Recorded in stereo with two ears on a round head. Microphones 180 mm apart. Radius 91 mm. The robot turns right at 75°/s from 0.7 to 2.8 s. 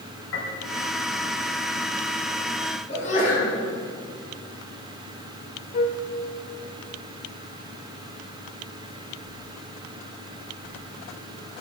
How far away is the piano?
About 3.5 m.